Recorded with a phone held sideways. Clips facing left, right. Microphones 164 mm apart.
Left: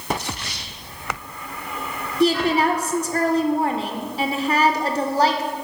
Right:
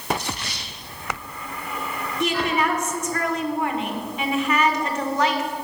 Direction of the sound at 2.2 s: 35° left (ahead or behind).